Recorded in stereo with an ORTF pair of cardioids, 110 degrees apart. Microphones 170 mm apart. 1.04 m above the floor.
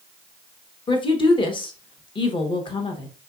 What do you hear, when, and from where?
0.9 s a woman speaking: 30° left, 0.8 m